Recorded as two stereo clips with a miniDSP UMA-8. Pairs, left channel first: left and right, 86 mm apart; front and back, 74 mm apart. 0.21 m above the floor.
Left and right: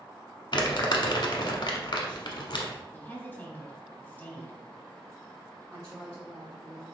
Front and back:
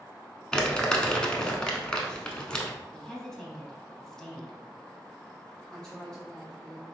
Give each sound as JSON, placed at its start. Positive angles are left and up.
{"t": 0.5, "sound": "crumpling", "azimuth_deg": 75, "distance_m": 0.8}
{"t": 2.9, "sound": "a woman speaking", "azimuth_deg": 70, "distance_m": 1.1}
{"t": 5.7, "sound": "a woman speaking", "azimuth_deg": -70, "distance_m": 1.2}